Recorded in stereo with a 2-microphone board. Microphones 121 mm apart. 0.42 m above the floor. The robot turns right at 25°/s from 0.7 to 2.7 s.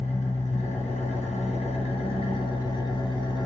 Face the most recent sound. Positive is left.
turn(degrees=135)